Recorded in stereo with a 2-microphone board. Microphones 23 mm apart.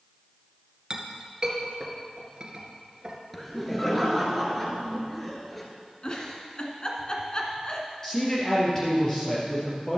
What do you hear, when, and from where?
0.9 s a clink: 30° right (ahead or behind), 1.7 m
3.3 s laughter: 5° left (ahead or behind), 2 m
6.0 s a giggle: 35° left (ahead or behind), 1.5 m
8.0 s a man speaking: 20° left (ahead or behind), 3 m